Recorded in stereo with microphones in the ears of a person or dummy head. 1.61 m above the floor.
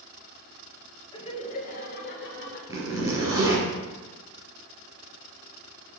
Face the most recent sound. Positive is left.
turn(degrees=-20)  # may be behind; listen again after turning